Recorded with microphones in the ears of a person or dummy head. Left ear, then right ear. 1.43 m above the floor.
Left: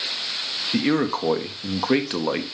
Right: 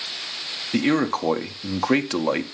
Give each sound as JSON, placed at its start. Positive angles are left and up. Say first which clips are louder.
{"t": 0.7, "sound": "a man speaking", "louder": "right 2 dB", "side_deg": -10, "distance_m": 0.9}